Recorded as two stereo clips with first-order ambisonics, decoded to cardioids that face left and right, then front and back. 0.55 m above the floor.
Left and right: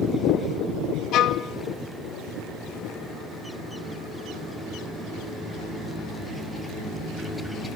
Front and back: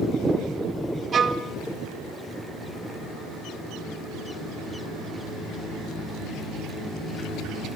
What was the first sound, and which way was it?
A violin, 120° left.